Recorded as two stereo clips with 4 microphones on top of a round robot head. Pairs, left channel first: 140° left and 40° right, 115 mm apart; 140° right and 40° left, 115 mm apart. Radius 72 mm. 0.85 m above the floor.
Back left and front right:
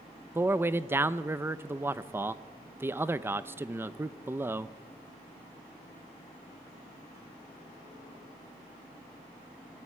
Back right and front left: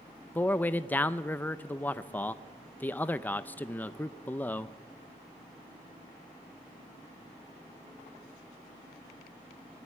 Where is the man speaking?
85° right, 0.7 m.